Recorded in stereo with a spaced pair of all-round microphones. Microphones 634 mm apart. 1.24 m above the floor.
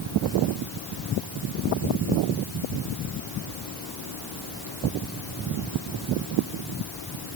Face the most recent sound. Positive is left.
No sound to turn to.